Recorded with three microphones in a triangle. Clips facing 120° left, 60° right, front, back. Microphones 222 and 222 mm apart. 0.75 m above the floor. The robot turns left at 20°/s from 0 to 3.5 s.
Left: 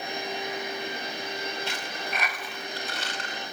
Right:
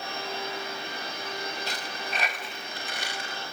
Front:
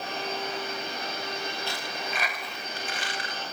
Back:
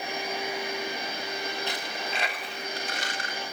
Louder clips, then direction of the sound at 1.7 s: Left 1 dB, back 1 dB; 110° right.